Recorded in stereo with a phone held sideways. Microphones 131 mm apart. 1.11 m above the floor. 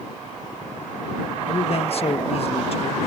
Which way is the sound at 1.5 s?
50° left (ahead or behind).